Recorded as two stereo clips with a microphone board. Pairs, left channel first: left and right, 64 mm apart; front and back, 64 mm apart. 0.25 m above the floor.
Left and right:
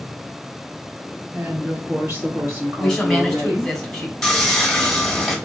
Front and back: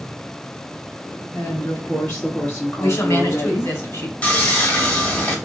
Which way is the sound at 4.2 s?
15° left.